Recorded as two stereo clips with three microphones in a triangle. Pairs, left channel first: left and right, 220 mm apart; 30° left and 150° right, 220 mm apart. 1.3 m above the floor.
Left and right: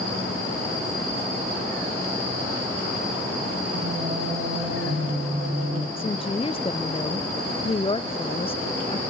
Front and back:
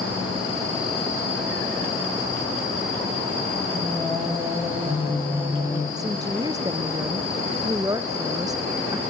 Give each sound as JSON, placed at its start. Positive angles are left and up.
{"t": 3.7, "sound": "singing", "azimuth_deg": -75, "distance_m": 2.0}
{"t": 6.0, "sound": "a woman speaking", "azimuth_deg": 145, "distance_m": 0.5}